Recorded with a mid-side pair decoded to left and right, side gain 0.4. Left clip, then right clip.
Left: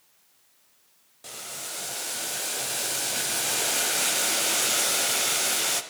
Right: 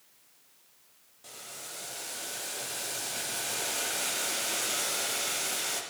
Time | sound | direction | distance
1.2 | boiling | 60° left | 0.6 m